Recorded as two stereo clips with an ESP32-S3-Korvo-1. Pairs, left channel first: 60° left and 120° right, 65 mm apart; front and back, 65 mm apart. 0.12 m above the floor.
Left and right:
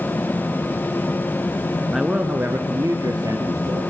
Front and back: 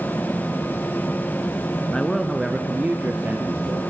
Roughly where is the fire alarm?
I don't hear a fire alarm.